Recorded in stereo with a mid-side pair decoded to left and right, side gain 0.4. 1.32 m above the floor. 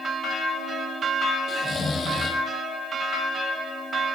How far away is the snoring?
About 1.4 m.